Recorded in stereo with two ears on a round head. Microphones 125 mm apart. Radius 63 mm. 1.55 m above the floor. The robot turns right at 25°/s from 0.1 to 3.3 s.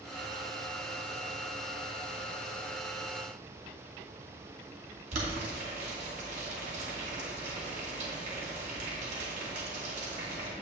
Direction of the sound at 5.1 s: 55° right (ahead or behind).